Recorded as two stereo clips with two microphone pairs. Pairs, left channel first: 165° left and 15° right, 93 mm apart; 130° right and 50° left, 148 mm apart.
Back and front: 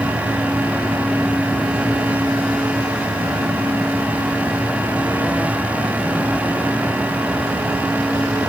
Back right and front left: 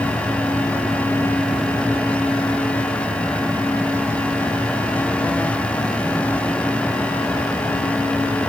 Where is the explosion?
No explosion in this recording.